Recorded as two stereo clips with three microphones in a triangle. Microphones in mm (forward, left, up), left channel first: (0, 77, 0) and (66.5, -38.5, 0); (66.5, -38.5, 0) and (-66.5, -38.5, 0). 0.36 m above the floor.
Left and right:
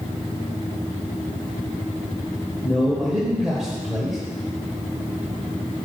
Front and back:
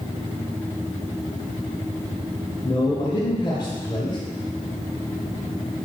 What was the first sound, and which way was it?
A man speaking, 25° left.